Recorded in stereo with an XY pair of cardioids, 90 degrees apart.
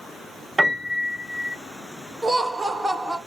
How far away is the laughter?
About 1.3 m.